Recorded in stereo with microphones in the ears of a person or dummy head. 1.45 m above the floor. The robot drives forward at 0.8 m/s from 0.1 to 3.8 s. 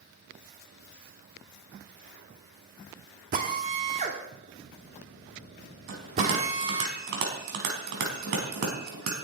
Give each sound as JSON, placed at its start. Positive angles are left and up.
{"t": 3.3, "sound": "a drill", "side_deg": -45, "distance_m": 1.7}
{"t": 5.9, "sound": "a bell", "side_deg": -60, "distance_m": 4.0}